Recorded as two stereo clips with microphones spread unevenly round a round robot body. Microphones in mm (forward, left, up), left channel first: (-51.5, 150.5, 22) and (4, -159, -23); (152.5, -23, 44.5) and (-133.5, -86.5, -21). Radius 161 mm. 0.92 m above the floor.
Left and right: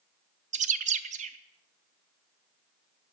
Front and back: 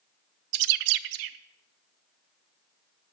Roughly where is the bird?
Behind right.